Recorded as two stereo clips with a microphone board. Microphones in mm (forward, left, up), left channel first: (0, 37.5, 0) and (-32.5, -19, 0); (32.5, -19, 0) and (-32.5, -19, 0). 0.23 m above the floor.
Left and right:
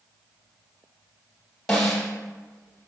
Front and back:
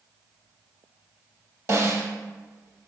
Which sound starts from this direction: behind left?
A snare drum, at 1.7 s.